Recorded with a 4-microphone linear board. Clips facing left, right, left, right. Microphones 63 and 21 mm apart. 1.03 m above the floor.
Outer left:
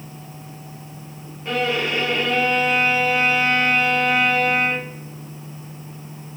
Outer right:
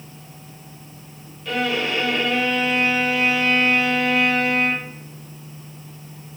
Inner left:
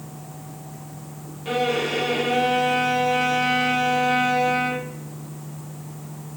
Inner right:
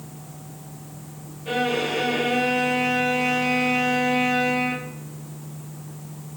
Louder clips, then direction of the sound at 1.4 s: Outer left 1 dB, inner left 1 dB; 30° left (ahead or behind).